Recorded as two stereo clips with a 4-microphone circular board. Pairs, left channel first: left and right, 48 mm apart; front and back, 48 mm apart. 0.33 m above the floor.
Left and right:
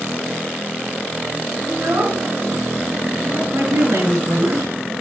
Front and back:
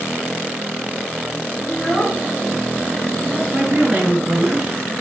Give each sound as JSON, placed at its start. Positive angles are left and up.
{"t": 1.7, "sound": "a child speaking", "azimuth_deg": -75, "distance_m": 3.0}
{"t": 3.5, "sound": "a woman speaking", "azimuth_deg": -115, "distance_m": 5.0}